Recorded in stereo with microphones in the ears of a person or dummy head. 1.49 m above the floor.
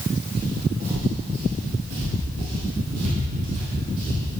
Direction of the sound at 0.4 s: 35° right (ahead or behind).